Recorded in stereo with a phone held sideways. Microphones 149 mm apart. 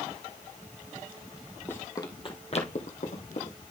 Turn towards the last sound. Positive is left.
turn(degrees=60)  # may be behind; listen again after turning